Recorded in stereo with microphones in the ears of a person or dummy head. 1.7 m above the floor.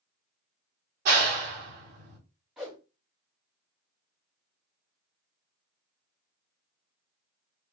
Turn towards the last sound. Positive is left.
turn(degrees=5)  # may be behind; listen again after turning